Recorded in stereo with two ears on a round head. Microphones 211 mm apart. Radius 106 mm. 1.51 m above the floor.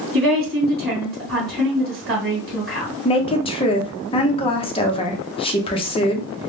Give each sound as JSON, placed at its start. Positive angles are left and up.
{"t": 0.1, "sound": "a woman speaking", "side_deg": -40, "distance_m": 1.5}
{"t": 3.0, "sound": "a woman speaking", "side_deg": 25, "distance_m": 0.6}